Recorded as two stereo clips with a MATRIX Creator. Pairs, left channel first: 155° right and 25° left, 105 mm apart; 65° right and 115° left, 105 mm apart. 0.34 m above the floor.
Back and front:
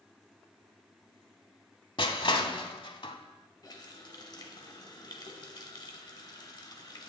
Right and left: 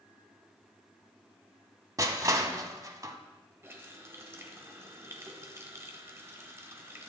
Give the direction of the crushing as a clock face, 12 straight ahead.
6 o'clock.